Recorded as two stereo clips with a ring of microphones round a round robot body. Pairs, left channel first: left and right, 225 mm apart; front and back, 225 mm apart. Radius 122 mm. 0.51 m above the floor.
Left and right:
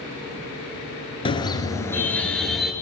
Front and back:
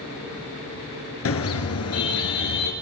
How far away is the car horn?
About 4.5 m.